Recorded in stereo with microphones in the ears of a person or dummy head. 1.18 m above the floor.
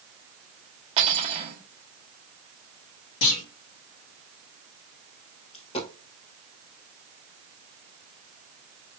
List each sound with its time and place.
1.0 s cutlery clinking: 35° right (ahead or behind), 1.2 m
3.2 s a clunk: 70° left (ahead or behind), 1.8 m
5.5 s a dropped coin: 35° left (ahead or behind), 1.6 m